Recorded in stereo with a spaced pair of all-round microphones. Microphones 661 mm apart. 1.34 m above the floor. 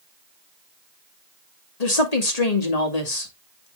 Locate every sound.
1.8 s a woman speaking: 70° left (ahead or behind), 2 m